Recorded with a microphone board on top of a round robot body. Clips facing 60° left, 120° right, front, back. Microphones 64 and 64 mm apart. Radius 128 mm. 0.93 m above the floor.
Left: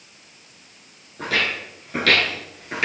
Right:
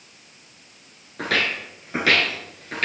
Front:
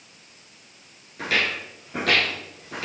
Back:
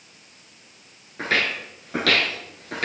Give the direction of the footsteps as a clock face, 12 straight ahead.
4 o'clock.